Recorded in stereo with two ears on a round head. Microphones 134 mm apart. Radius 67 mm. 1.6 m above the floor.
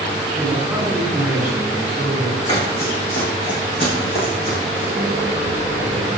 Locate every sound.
0.4 s a man speaking: 10° right (ahead or behind), 5.5 m; by 2.4 s 5° right (ahead or behind), 4 m
2.5 s running footsteps: 30° left (ahead or behind), 5.5 m; by 4.9 s 45° left (ahead or behind), 5 m
5.0 s a microwave: 25° right (ahead or behind), 1.4 m